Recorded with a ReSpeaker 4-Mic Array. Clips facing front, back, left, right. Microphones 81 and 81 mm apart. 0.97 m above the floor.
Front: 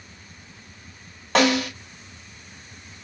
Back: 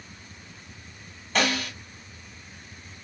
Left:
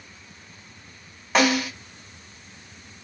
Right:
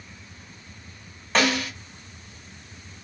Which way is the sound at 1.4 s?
5° left.